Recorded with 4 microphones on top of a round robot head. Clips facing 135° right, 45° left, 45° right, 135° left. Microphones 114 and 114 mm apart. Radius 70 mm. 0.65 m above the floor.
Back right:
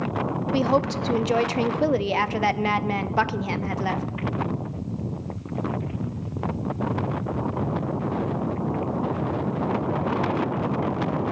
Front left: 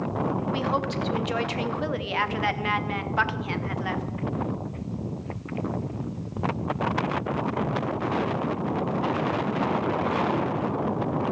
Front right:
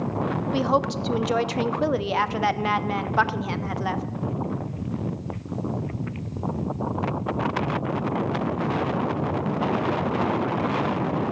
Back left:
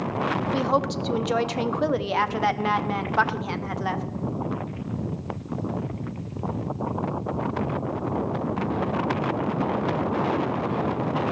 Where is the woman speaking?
135° right, 0.9 m.